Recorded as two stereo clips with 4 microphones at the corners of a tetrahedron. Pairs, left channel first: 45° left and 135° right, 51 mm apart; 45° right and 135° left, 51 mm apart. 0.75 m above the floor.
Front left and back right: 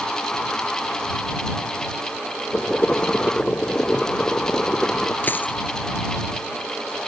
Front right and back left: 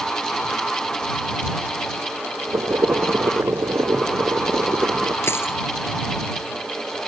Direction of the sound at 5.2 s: 5° right.